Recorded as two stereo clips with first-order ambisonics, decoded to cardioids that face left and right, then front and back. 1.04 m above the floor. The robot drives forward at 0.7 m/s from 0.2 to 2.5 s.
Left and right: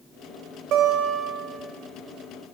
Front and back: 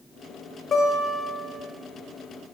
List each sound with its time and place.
0.7 s a guitar: 60° right, 1.2 m; by 1.6 s 100° right, 1.1 m